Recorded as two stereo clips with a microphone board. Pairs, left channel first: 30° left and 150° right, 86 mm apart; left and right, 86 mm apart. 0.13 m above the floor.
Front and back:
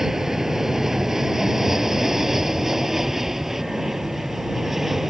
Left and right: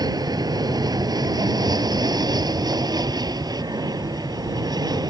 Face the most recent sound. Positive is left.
turn(degrees=-65)